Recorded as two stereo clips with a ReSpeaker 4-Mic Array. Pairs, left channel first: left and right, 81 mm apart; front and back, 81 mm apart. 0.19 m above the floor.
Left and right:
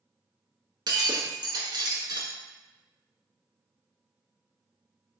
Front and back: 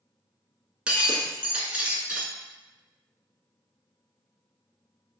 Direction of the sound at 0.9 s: 105° right.